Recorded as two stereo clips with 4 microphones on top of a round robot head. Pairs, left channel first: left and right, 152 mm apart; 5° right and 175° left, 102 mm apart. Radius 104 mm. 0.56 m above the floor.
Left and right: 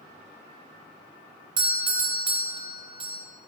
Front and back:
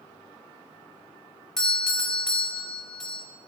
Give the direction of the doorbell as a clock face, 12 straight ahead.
3 o'clock.